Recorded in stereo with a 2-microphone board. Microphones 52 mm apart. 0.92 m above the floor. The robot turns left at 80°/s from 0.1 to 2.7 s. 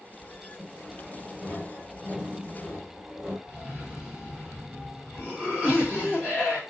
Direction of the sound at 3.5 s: 20° right (ahead or behind).